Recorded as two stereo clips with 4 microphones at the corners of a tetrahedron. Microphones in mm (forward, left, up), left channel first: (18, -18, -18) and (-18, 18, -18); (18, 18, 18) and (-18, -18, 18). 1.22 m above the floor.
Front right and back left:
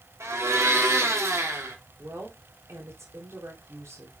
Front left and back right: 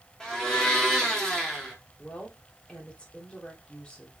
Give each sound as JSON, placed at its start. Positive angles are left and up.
{"t": 0.2, "sound": "a blender", "azimuth_deg": 120, "distance_m": 2.5}
{"t": 2.0, "sound": "a woman speaking", "azimuth_deg": 115, "distance_m": 3.0}